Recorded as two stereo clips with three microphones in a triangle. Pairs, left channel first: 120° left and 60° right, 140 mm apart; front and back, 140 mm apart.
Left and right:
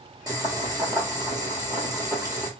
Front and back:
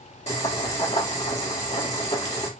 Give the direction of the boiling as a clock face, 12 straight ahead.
12 o'clock.